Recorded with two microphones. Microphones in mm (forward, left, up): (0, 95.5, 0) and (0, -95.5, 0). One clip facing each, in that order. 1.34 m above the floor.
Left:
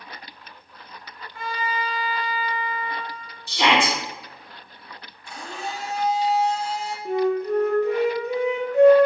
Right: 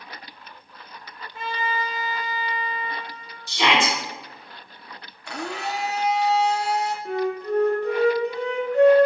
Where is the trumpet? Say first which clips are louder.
Even; 25° right (ahead or behind), 1.2 m.